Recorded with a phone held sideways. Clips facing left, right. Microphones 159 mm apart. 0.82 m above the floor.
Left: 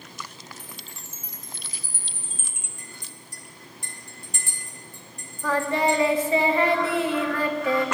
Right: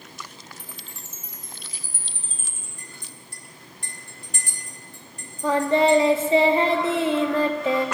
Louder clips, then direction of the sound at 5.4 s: Right 5 dB; 25° right (ahead or behind).